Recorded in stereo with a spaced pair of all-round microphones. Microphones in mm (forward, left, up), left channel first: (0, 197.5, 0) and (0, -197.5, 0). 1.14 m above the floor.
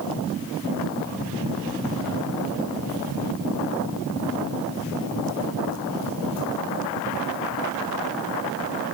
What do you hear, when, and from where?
Only background noise.